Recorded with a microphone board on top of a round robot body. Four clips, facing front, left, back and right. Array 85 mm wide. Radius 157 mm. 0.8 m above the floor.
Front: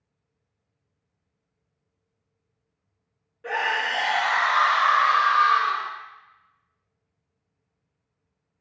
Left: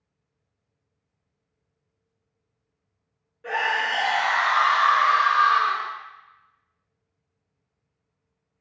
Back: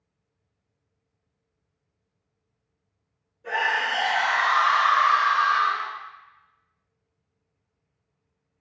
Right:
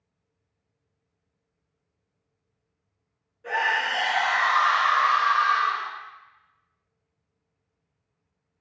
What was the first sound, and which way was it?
A scream, 30° left.